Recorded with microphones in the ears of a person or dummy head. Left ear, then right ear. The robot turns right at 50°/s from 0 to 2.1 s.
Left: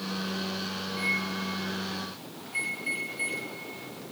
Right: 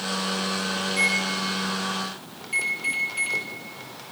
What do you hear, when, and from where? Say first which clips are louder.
0.9 s a microwave: right 6 dB; 45° right (ahead or behind), 5.5 m; by 4.0 s 70° right (ahead or behind), 5.5 m